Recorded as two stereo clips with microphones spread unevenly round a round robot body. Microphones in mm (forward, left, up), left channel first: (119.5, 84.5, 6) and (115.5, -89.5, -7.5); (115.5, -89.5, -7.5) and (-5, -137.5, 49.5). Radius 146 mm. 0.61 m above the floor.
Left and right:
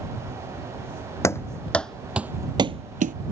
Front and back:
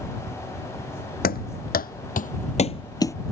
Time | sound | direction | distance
1.2 | running footsteps | 15° left | ?